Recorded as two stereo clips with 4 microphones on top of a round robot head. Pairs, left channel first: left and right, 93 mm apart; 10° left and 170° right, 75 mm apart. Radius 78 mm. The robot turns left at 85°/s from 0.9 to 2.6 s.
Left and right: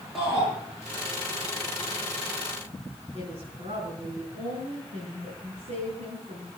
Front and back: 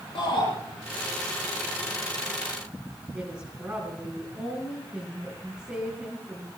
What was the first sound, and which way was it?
A shout, straight ahead.